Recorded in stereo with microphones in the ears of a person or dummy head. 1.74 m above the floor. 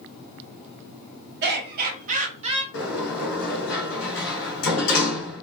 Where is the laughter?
60° right (ahead or behind), 1.5 m; by 2.6 s 30° right (ahead or behind), 1.4 m.